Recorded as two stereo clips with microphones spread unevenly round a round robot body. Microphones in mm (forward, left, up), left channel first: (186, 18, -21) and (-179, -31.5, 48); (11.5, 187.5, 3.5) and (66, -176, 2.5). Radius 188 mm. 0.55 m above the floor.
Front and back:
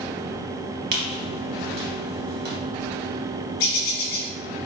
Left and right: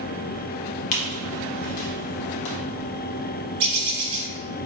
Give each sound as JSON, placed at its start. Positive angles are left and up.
{"t": 0.9, "sound": "a squeak", "azimuth_deg": 130, "distance_m": 0.8}
{"t": 3.6, "sound": "a bird", "azimuth_deg": -30, "distance_m": 1.3}